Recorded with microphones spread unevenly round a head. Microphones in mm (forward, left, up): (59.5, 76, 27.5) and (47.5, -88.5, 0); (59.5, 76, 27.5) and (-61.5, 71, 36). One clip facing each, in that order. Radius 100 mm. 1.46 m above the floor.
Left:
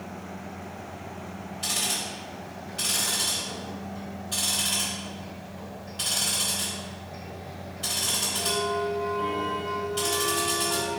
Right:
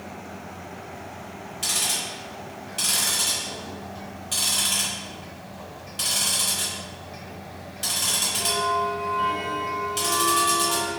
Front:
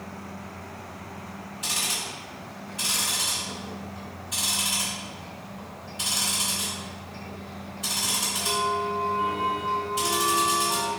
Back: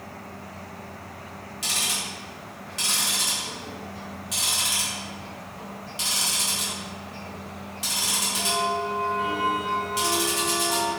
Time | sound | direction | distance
1.6 | ticking | 145° right | 1.6 m